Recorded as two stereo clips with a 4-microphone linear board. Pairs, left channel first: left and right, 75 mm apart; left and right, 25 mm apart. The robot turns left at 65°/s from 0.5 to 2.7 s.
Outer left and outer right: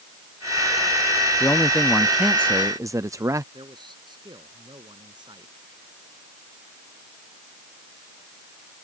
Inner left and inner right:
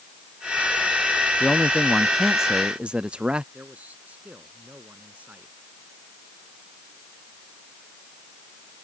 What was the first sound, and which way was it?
A man speaking, 40° left.